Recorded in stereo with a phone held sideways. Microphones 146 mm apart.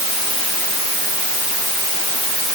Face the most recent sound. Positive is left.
No sound to turn to.